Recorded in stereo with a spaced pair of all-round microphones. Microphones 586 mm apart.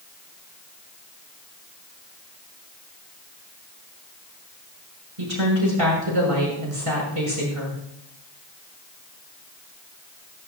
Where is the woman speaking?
60° right (ahead or behind), 6.5 m.